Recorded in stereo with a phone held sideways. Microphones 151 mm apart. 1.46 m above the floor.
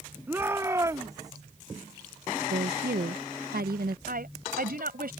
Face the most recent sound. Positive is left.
turn(degrees=-75)  # may be behind; listen again after turning